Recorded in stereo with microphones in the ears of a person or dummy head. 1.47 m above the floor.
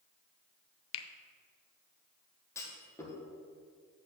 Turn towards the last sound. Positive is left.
turn(degrees=20)  # may be behind; listen again after turning